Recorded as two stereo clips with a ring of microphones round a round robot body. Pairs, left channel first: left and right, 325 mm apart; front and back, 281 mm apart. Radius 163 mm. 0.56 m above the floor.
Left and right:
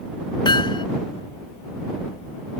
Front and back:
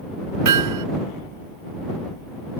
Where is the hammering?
165° left.